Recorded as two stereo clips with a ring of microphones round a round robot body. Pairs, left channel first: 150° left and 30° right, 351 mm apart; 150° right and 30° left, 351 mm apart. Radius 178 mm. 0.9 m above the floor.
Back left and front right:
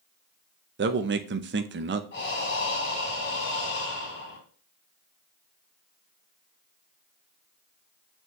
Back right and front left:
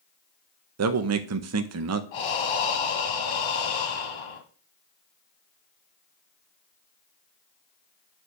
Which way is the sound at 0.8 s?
15° left.